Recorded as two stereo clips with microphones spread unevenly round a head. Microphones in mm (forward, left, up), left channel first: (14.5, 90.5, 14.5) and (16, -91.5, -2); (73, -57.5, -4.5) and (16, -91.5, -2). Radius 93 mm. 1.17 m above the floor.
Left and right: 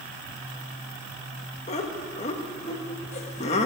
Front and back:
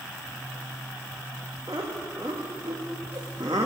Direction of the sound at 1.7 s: 145° left.